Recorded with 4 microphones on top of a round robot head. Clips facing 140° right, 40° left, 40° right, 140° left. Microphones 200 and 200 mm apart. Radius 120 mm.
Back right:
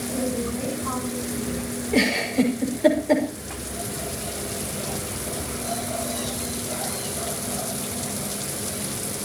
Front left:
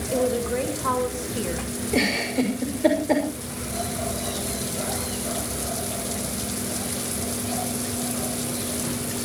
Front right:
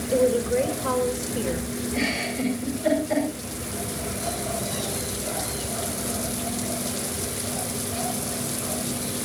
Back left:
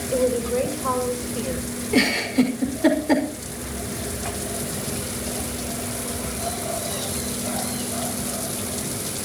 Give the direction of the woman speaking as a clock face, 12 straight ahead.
11 o'clock.